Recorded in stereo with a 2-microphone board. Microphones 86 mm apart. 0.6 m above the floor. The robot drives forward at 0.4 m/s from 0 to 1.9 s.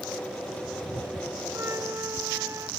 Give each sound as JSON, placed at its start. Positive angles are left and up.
{"t": 1.5, "sound": "a flute", "side_deg": -35}